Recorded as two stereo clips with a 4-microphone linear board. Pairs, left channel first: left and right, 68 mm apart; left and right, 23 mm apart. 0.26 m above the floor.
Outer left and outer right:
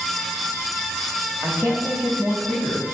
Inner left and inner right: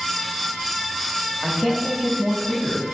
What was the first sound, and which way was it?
A woman speaking, 10° right (ahead or behind).